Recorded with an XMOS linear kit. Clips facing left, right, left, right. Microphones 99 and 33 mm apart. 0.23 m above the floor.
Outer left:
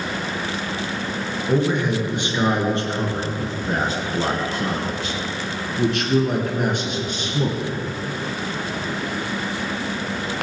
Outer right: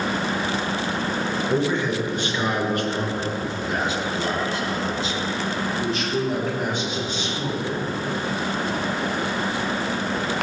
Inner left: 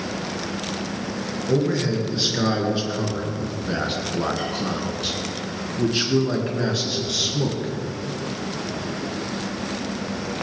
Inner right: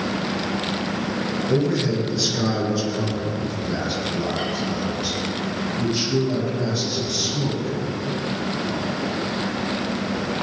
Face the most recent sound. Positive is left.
turn(degrees=65)  # may be behind; listen again after turning